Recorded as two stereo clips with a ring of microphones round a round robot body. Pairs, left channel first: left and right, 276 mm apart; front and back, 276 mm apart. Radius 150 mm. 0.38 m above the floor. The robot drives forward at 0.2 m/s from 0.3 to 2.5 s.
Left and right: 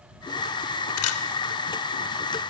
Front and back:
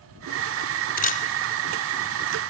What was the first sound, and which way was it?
A camera shutter, 60° left.